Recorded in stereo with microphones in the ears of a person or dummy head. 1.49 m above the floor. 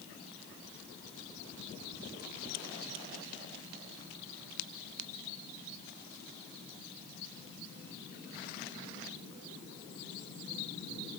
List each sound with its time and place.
Only background noise.